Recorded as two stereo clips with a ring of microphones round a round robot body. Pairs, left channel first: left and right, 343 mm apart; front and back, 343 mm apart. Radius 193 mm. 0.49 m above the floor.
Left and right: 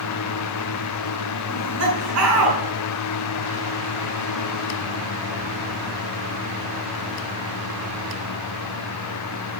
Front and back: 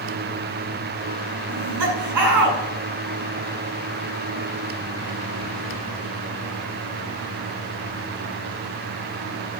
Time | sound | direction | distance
1.5 | laughter | 145° right | 6.5 m